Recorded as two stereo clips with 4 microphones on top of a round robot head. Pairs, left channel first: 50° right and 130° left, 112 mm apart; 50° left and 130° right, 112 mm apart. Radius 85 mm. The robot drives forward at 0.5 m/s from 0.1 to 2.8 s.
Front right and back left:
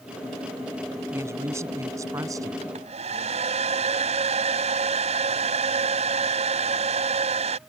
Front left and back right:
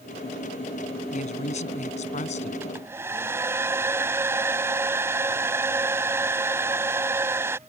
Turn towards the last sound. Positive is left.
turn(degrees=160)